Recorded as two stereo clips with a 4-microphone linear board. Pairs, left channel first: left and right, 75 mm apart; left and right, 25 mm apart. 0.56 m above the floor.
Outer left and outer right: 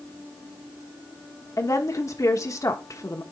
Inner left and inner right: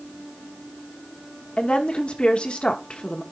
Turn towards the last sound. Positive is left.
turn(degrees=45)  # may be behind; listen again after turning